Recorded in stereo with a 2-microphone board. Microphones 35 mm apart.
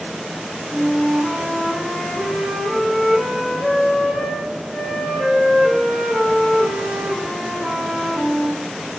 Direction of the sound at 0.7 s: 10° right (ahead or behind).